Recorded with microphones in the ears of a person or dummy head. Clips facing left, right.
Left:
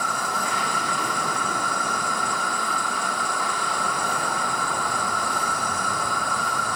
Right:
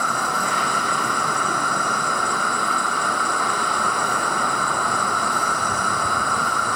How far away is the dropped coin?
No dropped coin in this recording.